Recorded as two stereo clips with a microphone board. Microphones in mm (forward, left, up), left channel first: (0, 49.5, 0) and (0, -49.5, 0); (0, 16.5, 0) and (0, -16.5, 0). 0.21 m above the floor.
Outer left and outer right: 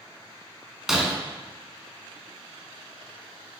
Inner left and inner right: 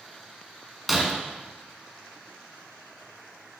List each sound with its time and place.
0.9 s breaking glass: 5° right (ahead or behind), 1.2 m